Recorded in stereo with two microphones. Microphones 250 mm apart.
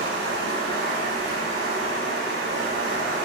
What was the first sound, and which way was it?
Running water, 55° right (ahead or behind).